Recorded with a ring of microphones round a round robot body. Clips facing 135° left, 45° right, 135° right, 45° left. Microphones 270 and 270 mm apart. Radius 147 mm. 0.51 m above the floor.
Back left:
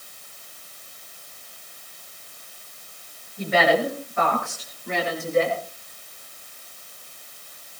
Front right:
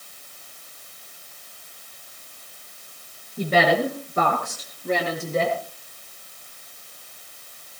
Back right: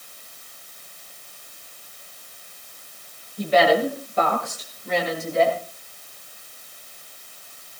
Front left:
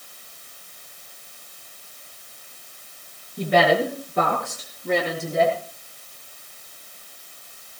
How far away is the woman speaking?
About 8.5 m.